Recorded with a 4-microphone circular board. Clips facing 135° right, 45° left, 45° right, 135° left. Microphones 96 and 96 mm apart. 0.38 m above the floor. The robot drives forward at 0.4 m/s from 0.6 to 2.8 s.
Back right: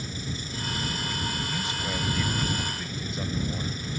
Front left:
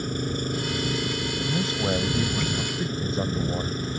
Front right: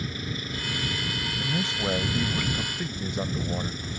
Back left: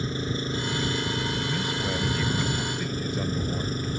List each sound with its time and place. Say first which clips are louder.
0.0 s an engine running: front left 8 dB, back left 5 dB; 80° left; by 4.0 s 90° left
1.4 s a man speaking: front left 5 dB, even; 10° left; by 3.9 s 15° left